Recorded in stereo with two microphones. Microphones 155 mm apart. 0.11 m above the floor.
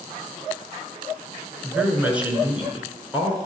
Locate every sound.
1.6 s a woman speaking: 10° right (ahead or behind), 1.1 m